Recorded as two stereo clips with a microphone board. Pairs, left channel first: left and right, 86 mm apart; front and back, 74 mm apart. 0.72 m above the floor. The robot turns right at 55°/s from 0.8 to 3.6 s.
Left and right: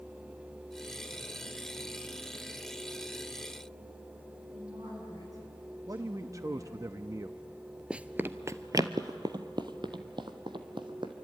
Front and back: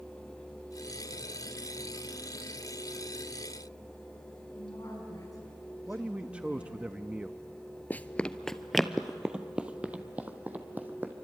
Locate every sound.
4.5 s a woman speaking: 40° right, 7.5 m
5.9 s a man speaking: 115° right, 0.6 m
7.9 s running footsteps: 25° right, 0.7 m; by 11.1 s 115° right, 2.0 m